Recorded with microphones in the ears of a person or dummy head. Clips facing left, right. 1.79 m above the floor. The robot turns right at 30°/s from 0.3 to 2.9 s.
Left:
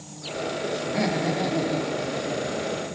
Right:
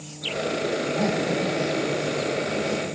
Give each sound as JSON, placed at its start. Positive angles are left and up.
{"t": 0.8, "sound": "laughter", "azimuth_deg": 75, "distance_m": 4.0}